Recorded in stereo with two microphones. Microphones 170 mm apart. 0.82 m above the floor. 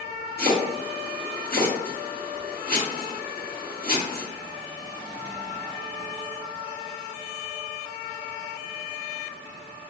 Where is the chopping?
55° right (ahead or behind), 1.9 m.